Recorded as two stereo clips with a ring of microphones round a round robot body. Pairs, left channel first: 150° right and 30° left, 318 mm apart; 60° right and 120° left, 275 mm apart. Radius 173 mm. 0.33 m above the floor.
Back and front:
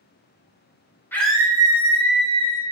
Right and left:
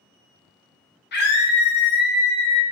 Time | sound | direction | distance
1.1 | a scream | 70° right | 1.1 m